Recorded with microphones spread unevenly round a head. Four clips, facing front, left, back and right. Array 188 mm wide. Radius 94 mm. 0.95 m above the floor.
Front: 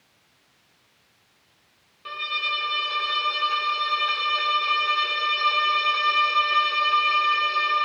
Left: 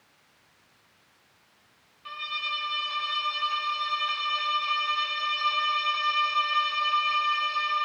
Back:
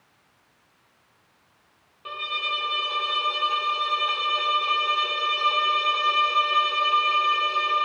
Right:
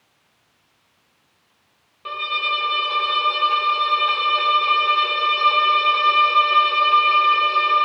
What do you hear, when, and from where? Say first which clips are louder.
2.0 s a violin: right 10 dB, even; 105° right